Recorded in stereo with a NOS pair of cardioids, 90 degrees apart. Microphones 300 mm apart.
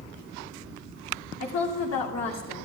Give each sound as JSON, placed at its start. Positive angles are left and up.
{"t": 1.4, "sound": "a woman speaking", "azimuth_deg": 60, "distance_m": 2.5}